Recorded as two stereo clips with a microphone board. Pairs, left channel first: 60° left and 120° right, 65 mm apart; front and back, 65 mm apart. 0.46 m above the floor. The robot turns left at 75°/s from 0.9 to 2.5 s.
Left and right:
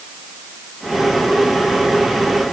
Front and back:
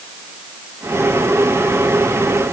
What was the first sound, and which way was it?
Only background noise.